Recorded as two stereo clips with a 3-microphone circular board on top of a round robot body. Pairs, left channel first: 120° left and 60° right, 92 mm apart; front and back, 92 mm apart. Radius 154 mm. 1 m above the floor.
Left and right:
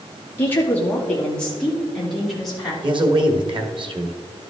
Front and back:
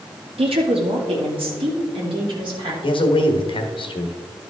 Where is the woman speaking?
175° right, 2 m; by 2.7 s 150° right, 4 m.